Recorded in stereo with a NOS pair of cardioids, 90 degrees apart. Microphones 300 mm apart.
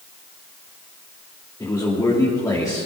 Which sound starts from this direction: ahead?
A man speaking, at 1.6 s.